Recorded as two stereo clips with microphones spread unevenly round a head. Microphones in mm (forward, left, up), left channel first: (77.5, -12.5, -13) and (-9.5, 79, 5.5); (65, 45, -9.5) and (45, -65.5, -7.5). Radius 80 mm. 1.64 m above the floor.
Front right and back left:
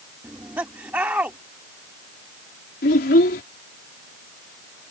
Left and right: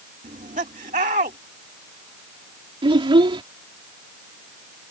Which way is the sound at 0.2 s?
145° right.